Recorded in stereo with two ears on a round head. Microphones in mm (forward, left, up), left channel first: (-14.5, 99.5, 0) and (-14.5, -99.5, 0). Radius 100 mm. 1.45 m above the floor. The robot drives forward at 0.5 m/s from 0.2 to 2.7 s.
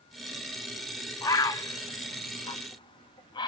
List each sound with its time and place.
1.2 s a bird: 15° left (ahead or behind), 1.1 m; by 3.5 s 20° left (ahead or behind), 0.8 m